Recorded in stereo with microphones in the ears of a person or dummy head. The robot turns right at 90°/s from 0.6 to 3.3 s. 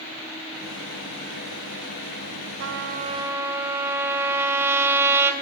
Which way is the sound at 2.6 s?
75° right.